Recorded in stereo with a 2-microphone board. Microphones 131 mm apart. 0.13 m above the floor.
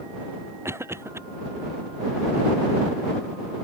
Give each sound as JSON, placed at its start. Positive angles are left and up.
{"t": 0.7, "sound": "a cough", "side_deg": -20}